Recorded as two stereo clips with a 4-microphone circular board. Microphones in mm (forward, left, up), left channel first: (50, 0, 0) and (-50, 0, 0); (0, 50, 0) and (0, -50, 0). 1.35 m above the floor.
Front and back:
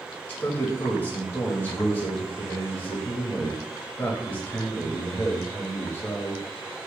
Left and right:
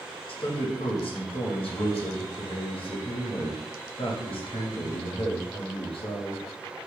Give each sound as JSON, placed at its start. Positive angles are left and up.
{"t": 0.3, "sound": "a man speaking", "azimuth_deg": 70, "distance_m": 0.9}